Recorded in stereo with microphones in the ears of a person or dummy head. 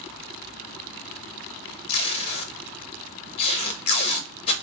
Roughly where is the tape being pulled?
Left.